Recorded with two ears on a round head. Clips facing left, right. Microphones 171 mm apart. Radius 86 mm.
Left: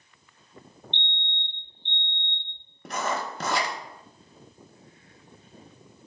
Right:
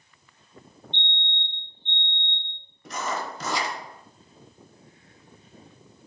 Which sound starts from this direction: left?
Writing, at 2.9 s.